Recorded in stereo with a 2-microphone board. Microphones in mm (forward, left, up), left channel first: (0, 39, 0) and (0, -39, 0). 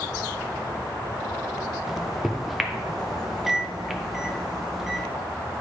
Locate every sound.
1.9 s a microwave: centre (ahead or behind), 0.7 m